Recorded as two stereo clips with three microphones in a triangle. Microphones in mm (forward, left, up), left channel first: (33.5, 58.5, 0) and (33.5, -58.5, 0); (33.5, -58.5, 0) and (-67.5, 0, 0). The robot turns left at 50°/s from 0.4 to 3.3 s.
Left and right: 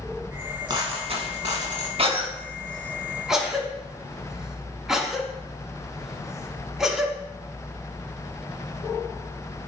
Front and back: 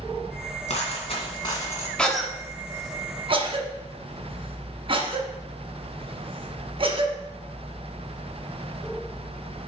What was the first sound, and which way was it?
A dropped coin, 40° right.